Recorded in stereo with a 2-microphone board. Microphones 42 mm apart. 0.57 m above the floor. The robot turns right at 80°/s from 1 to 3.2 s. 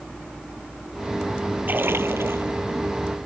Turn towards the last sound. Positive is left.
turn(degrees=-10)